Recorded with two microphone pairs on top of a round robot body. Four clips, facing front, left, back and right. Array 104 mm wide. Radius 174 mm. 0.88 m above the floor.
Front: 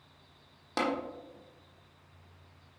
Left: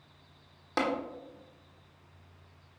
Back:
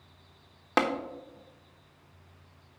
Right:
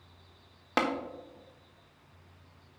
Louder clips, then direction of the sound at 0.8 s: Right 1 dB, back 5 dB; 160° right.